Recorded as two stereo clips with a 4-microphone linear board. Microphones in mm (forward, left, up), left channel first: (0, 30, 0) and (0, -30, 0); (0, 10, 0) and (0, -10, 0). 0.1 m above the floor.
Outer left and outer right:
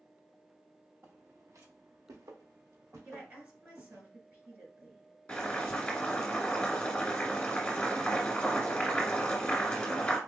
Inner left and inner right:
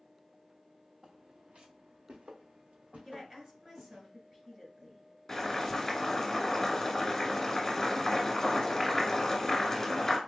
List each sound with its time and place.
1.0 s footsteps: 50° right (ahead or behind), 1.2 m; by 4.0 s 80° right, 3 m
3.0 s a woman speaking: 30° right (ahead or behind), 1.8 m
5.3 s boiling: 15° left (ahead or behind), 1.6 m